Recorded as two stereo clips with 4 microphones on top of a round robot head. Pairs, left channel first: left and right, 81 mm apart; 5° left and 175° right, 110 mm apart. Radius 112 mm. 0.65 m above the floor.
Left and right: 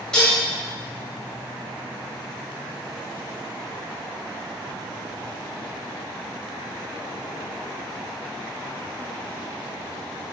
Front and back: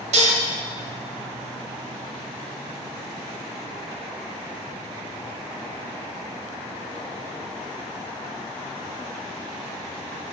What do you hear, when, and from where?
0.1 s dishes clattering: 175° left, 2 m